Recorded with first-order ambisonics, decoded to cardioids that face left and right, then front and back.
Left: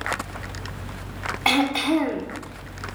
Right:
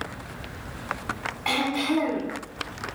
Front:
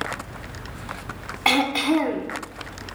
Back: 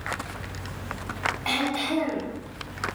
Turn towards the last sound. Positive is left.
turn(degrees=40)